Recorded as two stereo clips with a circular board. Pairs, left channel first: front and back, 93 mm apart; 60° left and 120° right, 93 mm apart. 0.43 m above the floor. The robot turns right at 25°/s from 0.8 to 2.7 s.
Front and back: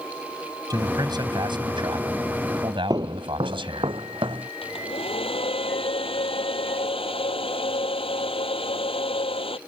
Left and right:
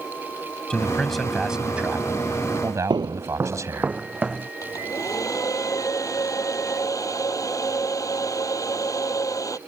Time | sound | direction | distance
0.7 | a man speaking | 140° left | ?
2.9 | footsteps | 140° right | ?
4.6 | a hair dryer | 5° left | ?